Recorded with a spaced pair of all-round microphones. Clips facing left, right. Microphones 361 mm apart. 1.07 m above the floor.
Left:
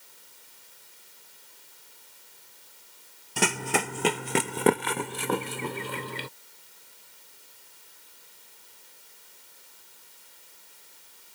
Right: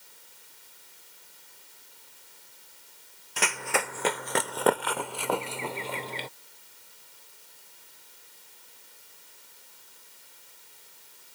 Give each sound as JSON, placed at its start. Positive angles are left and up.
{"t": 3.4, "sound": "running footsteps", "side_deg": 50}